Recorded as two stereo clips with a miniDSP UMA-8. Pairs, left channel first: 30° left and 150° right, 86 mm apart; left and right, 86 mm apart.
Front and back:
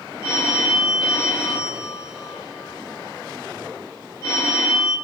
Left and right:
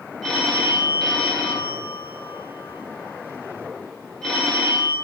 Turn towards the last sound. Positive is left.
turn(degrees=10)